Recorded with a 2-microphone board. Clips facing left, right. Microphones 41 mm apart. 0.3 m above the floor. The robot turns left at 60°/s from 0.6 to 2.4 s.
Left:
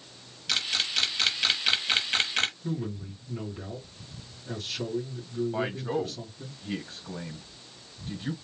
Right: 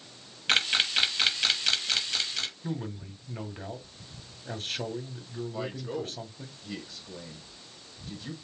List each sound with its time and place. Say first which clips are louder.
0.5 s a camera shutter: right 4 dB; 40° right (ahead or behind), 0.6 m; by 2.5 s 50° left (ahead or behind), 0.6 m
2.6 s a man speaking: left 2 dB; 50° right (ahead or behind), 2 m
5.5 s a man speaking: left 2 dB; 35° left (ahead or behind), 1.4 m